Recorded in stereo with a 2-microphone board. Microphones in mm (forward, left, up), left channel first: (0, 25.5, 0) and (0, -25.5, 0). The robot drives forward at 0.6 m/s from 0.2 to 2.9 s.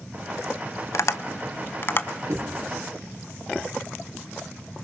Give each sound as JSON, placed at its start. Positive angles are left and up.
{"t": 0.9, "sound": "tapping", "side_deg": 75, "distance_m": 0.7}
{"t": 2.3, "sound": "knocking", "side_deg": -65, "distance_m": 4.0}